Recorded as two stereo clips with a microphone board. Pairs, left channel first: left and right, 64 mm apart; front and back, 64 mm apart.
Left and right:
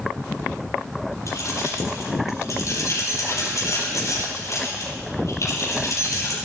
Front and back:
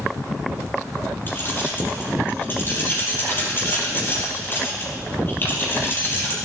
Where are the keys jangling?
60° left, 6 m.